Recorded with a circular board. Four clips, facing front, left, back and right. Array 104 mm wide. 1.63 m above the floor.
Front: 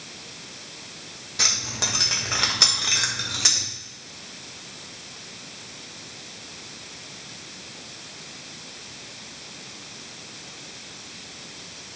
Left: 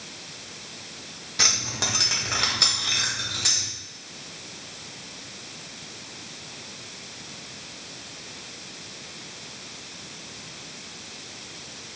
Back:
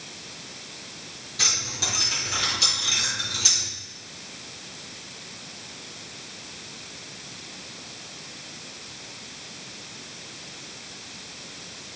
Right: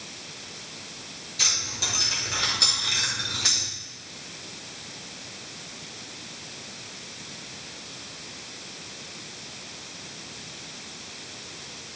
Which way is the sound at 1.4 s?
65° left.